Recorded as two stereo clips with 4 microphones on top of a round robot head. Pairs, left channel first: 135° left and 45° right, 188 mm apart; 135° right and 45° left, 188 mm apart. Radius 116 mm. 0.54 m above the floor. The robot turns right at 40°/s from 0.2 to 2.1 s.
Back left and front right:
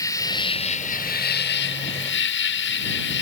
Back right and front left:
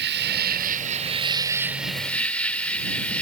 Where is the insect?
65° left; by 3.2 s 140° left.